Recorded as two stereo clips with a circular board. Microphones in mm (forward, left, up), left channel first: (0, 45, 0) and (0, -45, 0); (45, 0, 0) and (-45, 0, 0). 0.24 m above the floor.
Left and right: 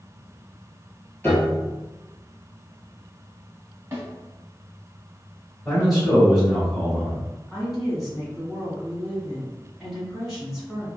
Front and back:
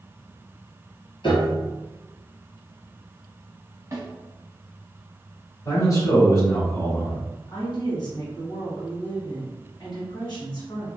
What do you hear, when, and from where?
1.2 s a piano: 20° left, 1.1 m
3.9 s a snare drum: 135° right, 1.0 m
5.7 s a man speaking: 5° right, 1.3 m
7.5 s a woman speaking: 5° right, 1.7 m